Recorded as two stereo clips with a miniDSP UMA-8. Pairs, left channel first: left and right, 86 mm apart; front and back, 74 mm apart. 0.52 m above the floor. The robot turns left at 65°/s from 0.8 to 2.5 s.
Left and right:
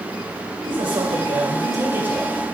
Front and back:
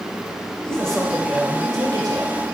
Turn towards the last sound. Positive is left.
turn(degrees=170)